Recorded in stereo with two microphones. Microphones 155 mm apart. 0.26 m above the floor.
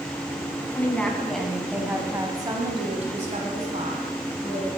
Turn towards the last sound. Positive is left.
turn(degrees=-55)  # may be behind; listen again after turning